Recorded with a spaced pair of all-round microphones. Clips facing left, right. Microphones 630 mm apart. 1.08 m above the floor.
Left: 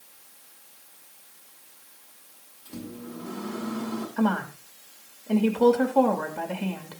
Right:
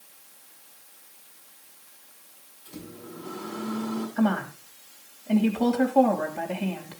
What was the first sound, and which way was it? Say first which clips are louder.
A microwave: left 4 dB; 70° left (ahead or behind).